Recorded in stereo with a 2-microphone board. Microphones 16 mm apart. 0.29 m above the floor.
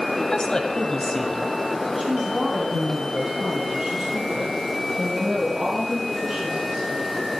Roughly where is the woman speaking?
Left.